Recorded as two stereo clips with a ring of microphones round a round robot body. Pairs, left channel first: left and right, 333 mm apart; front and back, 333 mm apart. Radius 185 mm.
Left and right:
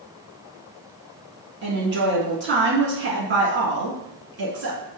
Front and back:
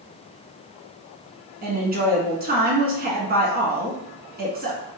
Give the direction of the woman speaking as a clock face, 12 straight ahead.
4 o'clock.